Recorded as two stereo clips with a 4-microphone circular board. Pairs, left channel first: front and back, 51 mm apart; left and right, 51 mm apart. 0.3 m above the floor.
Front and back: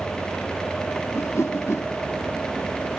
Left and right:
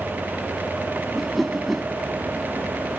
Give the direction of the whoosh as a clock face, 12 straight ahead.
12 o'clock.